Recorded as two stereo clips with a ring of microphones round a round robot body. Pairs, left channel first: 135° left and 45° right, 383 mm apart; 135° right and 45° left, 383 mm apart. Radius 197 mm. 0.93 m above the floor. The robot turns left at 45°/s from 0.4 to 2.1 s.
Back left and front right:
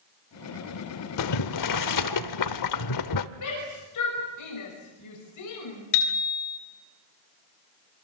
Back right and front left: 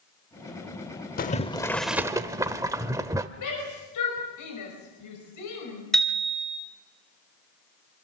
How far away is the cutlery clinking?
No cutlery clinking in this recording.